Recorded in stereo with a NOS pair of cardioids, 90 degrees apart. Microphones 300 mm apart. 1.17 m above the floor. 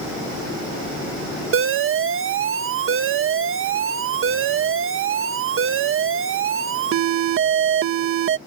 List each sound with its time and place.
1.5 s an alarm: 50° right